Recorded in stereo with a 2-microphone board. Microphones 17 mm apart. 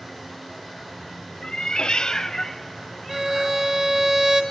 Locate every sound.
1.4 s a cat meowing: 55° left (ahead or behind), 0.7 m; by 3.6 s 5° left (ahead or behind), 2 m
3.1 s a violin: 40° right (ahead or behind), 3 m